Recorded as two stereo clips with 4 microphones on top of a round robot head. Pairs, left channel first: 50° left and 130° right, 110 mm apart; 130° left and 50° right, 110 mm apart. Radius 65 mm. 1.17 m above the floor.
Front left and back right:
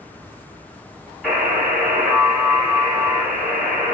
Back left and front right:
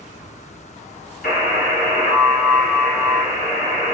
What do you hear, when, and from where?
1.2 s a buzzer: 145° left, 2.5 m